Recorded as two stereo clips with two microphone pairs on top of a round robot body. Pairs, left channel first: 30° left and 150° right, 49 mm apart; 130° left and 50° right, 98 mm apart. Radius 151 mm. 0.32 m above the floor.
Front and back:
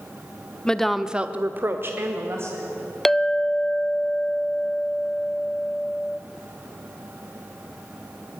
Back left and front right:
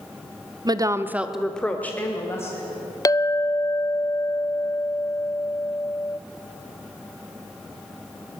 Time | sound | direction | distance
0.7 | a woman speaking | 50° right | 1.2 m
3.0 | a clink | 125° left | 0.5 m